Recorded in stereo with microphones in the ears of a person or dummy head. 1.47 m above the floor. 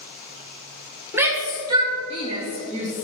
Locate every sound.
1.1 s a shout: 10° right (ahead or behind), 1.5 m; by 3.0 s 50° right (ahead or behind), 2.5 m